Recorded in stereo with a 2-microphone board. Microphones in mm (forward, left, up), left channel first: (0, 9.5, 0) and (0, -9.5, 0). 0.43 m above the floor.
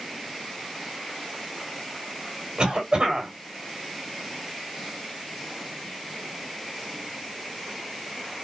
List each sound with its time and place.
2.6 s a cough: 50° right (ahead or behind), 3 m